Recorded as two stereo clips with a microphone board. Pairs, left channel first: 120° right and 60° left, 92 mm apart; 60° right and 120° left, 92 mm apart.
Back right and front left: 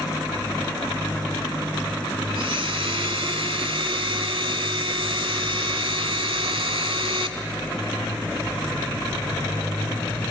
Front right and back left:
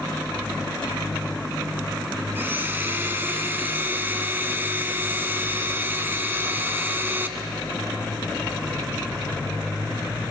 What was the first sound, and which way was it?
A blender, 55° left.